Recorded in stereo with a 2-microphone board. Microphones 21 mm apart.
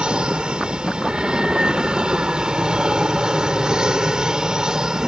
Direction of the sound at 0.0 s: 50° right (ahead or behind).